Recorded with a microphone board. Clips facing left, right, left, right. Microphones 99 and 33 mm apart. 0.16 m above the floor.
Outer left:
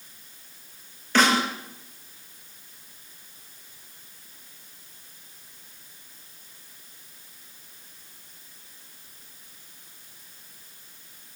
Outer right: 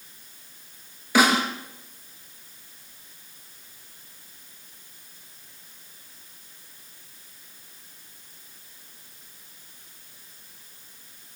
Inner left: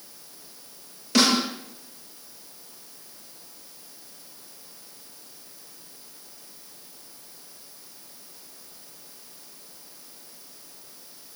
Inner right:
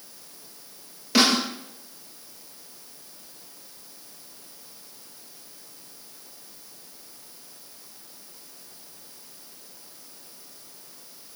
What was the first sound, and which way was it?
A snare drum, 10° right (ahead or behind).